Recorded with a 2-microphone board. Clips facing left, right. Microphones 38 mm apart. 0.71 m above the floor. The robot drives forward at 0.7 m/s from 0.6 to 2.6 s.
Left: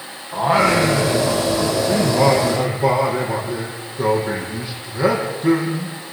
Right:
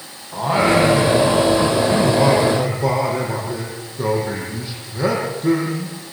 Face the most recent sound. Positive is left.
turn(degrees=5)  # may be behind; listen again after turning